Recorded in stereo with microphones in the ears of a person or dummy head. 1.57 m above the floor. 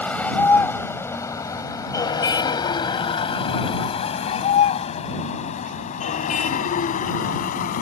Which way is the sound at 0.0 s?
5° left (ahead or behind).